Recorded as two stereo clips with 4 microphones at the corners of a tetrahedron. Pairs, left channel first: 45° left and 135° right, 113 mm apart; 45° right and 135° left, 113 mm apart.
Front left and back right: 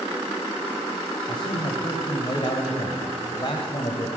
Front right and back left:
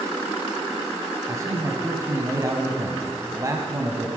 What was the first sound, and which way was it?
A man speaking, 80° left.